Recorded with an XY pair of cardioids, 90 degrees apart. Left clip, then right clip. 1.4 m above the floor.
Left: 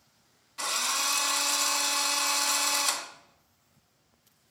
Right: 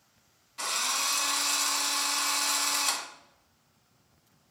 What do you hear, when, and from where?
0.6 s a drill: 15° left, 1.3 m